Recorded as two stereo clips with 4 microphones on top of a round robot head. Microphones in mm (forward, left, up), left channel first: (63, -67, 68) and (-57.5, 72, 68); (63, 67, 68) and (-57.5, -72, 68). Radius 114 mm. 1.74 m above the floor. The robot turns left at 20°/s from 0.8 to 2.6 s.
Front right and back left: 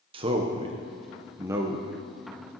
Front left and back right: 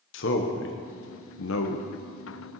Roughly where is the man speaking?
Left.